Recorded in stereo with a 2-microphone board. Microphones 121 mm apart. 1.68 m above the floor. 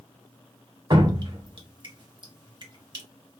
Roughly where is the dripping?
Right.